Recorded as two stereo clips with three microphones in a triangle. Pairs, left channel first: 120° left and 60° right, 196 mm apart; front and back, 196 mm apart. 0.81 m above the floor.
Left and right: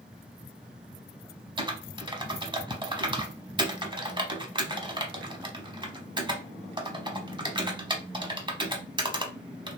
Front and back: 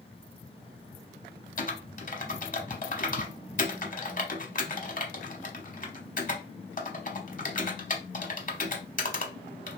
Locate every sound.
1.6 s typing on a keyboard: 5° right, 0.8 m